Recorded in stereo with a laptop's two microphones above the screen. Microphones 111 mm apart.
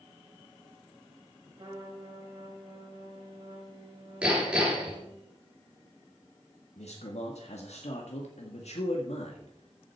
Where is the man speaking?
75° left (ahead or behind), 1.7 m.